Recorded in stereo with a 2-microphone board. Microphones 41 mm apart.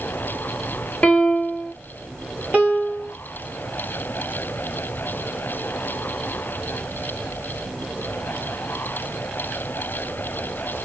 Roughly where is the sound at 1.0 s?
Left.